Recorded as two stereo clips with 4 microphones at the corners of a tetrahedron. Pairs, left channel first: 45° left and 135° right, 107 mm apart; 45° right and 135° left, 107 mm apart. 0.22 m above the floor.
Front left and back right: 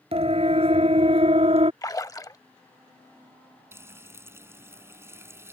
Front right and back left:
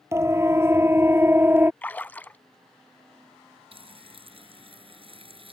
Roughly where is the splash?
Ahead.